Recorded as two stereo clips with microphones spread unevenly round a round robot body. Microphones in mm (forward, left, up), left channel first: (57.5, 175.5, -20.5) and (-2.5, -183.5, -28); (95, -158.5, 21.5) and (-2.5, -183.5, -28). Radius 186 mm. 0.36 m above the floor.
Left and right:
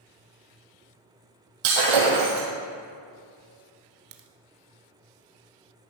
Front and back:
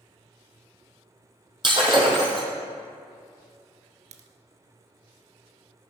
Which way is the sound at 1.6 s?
120° right.